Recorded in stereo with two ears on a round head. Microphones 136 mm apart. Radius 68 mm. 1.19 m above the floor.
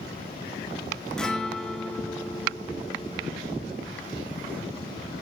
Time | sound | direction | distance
1.2 | a guitar | 5° left (ahead or behind) | 1.1 m